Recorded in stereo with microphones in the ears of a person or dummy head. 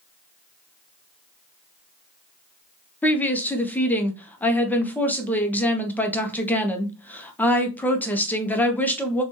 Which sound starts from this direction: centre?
A woman speaking, at 3.0 s.